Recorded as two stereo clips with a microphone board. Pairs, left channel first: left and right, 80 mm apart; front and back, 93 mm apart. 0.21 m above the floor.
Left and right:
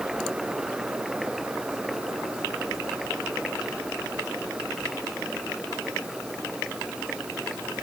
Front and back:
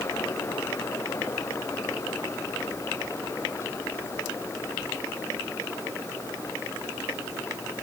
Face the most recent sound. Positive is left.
No sound to turn to.